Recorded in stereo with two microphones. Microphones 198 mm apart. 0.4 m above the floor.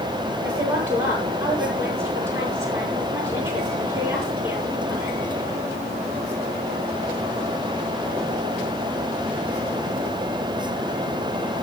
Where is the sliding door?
I don't hear a sliding door.